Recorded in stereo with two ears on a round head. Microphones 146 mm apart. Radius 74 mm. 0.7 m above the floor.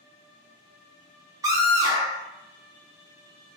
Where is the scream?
20° right (ahead or behind), 0.8 m.